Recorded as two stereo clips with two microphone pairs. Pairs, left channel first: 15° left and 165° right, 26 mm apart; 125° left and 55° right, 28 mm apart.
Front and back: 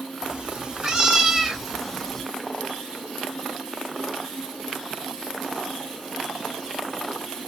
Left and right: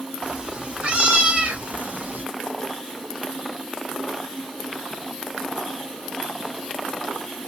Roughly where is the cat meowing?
Right.